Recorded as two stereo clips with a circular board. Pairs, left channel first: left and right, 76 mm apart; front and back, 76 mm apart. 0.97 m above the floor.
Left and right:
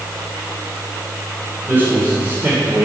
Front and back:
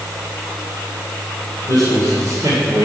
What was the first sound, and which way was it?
A man speaking, 150° right.